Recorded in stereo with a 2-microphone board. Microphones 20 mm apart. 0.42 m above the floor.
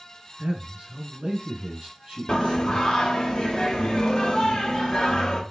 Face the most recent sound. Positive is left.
turn(degrees=35)  # may be behind; listen again after turning